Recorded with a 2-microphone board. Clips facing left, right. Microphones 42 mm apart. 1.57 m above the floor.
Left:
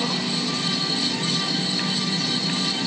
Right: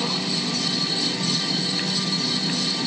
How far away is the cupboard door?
No cupboard door in this recording.